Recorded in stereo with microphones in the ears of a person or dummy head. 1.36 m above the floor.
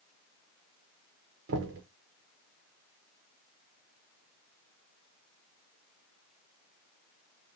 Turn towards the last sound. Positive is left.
turn(degrees=-70)  # may be behind; listen again after turning